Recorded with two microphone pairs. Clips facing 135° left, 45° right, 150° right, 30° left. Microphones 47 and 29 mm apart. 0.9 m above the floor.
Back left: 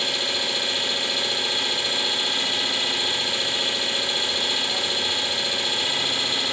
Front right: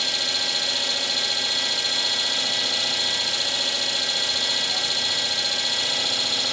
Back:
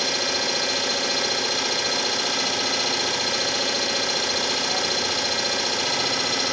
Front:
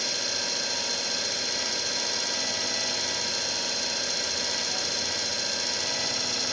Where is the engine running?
150° right, 1.3 m.